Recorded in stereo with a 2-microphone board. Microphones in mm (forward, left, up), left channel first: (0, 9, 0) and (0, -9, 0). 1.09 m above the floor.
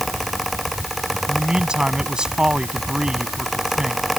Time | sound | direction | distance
1.3 | a man speaking | 50° right (ahead or behind) | ?